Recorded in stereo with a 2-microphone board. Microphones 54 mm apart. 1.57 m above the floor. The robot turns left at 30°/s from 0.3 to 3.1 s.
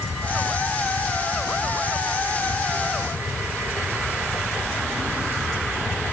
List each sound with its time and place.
Only background noise.